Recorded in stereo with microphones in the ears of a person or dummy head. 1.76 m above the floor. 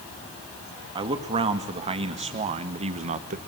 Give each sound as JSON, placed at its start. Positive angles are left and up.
{"t": 0.9, "sound": "a man speaking", "side_deg": -30, "distance_m": 2.5}